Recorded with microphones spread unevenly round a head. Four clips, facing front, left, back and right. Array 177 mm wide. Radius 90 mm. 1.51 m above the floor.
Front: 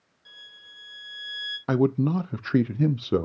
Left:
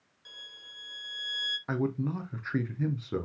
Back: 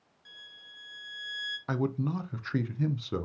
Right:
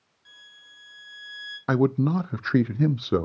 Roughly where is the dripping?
I don't hear dripping.